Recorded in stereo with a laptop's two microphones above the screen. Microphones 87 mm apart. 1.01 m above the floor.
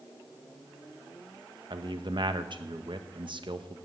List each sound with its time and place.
1.7 s a man speaking: 60° right (ahead or behind), 0.9 m